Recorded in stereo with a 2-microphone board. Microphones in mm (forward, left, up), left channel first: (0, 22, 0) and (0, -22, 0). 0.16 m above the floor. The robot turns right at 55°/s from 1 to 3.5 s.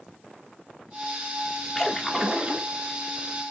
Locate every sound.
1.8 s a splash: 165° left, 0.9 m; by 2.7 s 140° right, 0.9 m